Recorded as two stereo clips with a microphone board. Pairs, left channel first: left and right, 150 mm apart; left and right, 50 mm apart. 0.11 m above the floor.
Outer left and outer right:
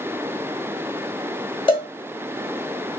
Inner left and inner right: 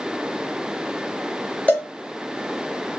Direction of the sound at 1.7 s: 35° left (ahead or behind).